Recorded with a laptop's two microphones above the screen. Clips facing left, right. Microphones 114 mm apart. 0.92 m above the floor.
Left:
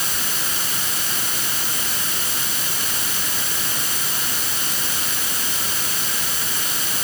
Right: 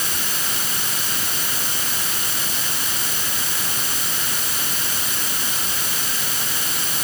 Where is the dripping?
I don't hear dripping.